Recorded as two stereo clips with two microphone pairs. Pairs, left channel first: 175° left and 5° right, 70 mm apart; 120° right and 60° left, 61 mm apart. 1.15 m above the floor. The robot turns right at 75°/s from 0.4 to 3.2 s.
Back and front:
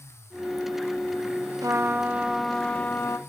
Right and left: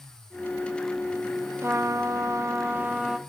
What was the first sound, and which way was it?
A trumpet, 20° left.